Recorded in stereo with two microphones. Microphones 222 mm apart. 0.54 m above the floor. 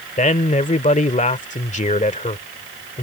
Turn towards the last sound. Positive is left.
turn(degrees=35)  # may be behind; listen again after turning